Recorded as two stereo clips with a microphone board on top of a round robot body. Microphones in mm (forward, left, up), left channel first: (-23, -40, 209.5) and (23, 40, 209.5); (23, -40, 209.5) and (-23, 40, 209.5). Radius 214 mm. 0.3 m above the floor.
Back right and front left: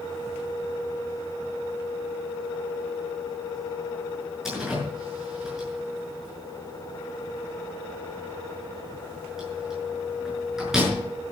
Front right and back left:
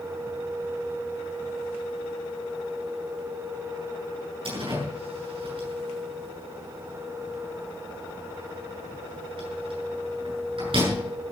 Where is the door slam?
145° left, 6.5 m.